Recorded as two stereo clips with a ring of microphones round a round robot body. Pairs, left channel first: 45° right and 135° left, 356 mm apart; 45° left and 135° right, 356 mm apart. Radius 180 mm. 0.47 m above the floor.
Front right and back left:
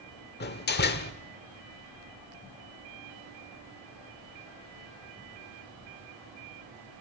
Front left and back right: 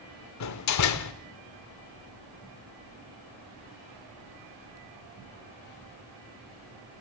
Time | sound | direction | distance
0.4 | a door slam | 15° left | 1.3 m